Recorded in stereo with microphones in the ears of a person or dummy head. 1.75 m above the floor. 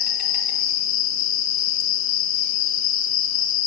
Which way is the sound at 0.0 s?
60° left (ahead or behind).